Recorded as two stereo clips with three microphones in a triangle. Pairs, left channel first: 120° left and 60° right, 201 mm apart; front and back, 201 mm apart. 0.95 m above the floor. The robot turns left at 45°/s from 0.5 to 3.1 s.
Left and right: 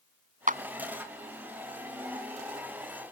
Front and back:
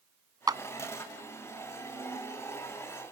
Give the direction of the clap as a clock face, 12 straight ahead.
4 o'clock.